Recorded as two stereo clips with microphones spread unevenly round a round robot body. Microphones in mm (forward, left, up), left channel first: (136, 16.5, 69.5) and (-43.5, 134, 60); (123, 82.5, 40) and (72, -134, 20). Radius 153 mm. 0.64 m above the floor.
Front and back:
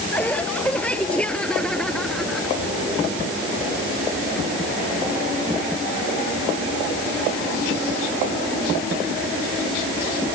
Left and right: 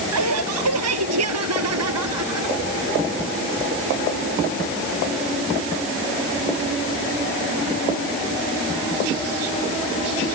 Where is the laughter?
120° right.